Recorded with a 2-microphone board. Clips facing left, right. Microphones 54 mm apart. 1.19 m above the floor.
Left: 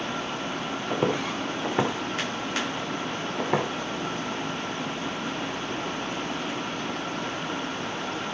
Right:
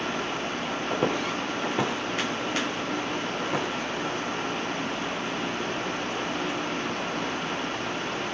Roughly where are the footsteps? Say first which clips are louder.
Left 1 dB; centre.